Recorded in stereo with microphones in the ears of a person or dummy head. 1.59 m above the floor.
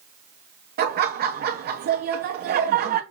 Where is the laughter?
50° right (ahead or behind), 0.9 m.